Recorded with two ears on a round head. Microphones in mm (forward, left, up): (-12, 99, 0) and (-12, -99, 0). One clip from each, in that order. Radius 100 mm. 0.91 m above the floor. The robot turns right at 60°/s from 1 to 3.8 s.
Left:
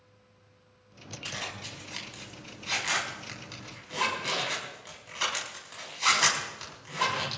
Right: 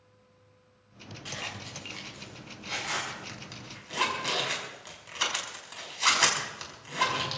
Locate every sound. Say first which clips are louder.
1.2 s a zipper: left 1 dB; 40° left (ahead or behind), 5.5 m; by 7.4 s 15° right (ahead or behind), 5.5 m